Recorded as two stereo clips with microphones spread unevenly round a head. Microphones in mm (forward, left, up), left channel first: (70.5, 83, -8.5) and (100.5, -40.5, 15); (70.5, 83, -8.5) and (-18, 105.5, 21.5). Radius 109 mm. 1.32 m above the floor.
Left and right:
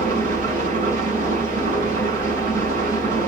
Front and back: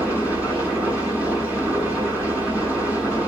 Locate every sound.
0.0 s an engine running: 130° right, 7 m